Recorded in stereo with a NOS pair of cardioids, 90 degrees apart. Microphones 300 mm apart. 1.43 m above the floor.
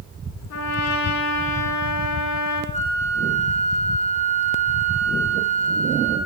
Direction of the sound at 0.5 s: 70° left.